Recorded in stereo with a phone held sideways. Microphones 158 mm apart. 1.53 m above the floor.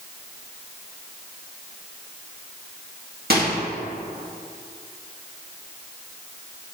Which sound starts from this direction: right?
A microwave, at 3.3 s.